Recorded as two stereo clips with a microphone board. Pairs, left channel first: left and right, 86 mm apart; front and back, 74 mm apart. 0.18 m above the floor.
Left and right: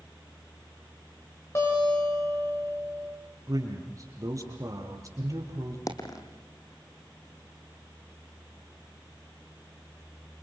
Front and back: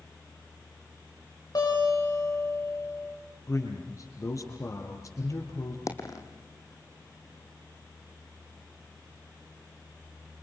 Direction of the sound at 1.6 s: 35° left.